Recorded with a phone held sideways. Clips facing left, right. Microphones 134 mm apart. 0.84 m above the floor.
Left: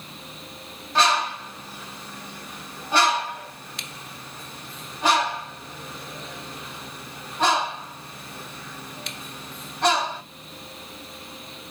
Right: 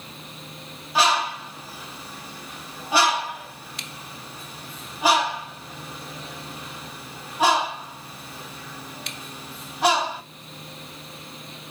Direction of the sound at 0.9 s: 10° right (ahead or behind).